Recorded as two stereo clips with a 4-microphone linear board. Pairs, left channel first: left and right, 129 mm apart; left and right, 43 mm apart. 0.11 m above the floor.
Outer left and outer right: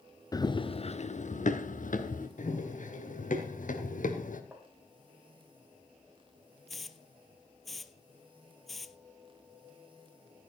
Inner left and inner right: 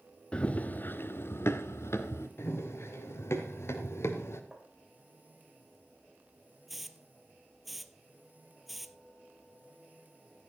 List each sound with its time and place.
0.3 s running footsteps: 25° left (ahead or behind), 1.3 m; by 2.3 s 90° left, 2.5 m
2.4 s running footsteps: 75° left (ahead or behind), 4 m; by 4.4 s 85° left, 2.5 m
4.5 s tapping: 15° right (ahead or behind), 3 m
6.7 s a hiss: centre (ahead or behind), 0.9 m